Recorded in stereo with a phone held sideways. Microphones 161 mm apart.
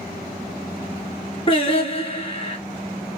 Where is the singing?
40° left (ahead or behind), 1.8 m.